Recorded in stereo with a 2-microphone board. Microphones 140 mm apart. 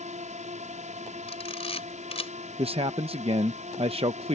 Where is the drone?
55° right (ahead or behind).